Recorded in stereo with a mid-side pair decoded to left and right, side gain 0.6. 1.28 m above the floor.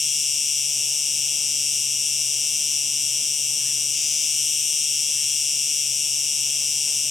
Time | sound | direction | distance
0.0 | an insect | 20° left | 0.9 m